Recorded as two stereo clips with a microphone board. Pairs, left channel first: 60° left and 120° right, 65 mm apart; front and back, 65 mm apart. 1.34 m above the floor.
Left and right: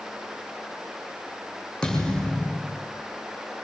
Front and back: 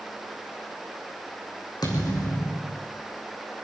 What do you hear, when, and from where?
1.8 s a thud: 15° right, 5.5 m